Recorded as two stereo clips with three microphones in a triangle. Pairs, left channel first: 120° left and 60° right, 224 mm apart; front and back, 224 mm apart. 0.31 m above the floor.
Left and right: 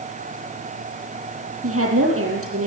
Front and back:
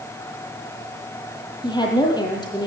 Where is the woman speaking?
70° right, 8 m.